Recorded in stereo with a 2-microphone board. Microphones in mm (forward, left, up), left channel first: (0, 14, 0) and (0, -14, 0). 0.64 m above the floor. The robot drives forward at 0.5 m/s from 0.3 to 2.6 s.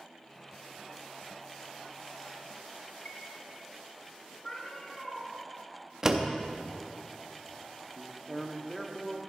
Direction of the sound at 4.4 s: 35° left (ahead or behind).